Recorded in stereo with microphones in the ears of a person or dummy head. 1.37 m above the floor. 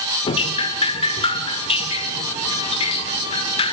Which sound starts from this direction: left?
Dripping, at 0.2 s.